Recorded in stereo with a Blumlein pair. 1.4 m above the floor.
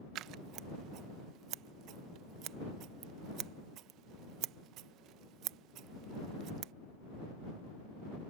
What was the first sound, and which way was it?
Scissors, 35° right.